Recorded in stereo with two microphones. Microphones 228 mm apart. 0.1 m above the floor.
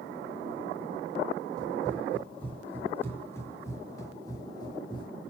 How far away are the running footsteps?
About 6 m.